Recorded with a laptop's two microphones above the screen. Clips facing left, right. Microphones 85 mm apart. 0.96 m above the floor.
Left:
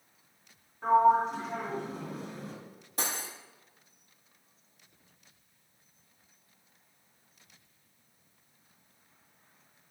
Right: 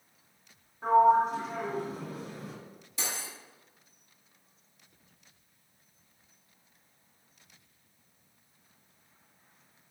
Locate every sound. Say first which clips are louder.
0.8 s a sliding door: right 1 dB; centre (ahead or behind), 2 m
3.0 s cutlery clinking: left 3 dB; 45° left (ahead or behind), 0.9 m